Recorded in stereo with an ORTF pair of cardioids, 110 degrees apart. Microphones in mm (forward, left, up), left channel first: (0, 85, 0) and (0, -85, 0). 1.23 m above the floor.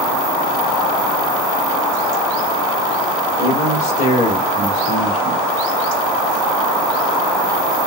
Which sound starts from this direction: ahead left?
A man speaking, at 3.4 s.